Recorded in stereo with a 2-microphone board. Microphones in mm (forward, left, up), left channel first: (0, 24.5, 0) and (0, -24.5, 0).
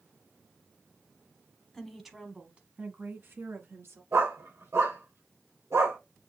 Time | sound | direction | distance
1.7 | a woman speaking | 10° left (ahead or behind) | 1.1 m
4.1 | a dog barking | 75° right (ahead or behind) | 4 m